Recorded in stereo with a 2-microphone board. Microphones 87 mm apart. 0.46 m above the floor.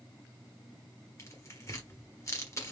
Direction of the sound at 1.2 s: 30° left (ahead or behind).